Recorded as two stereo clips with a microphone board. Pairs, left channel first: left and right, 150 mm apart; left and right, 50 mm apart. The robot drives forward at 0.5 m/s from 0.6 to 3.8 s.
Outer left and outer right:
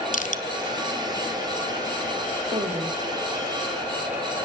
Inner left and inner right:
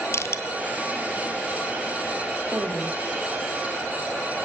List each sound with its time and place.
0.1 s crushing: 60° left (ahead or behind), 0.6 m
2.5 s a woman speaking: 40° right (ahead or behind), 3.5 m; by 3.0 s 35° right (ahead or behind), 3.5 m